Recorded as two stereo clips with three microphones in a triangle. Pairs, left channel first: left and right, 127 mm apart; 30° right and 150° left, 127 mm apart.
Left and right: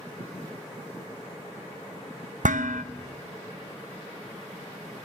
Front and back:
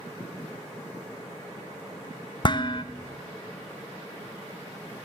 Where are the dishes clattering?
85° right, 0.5 m.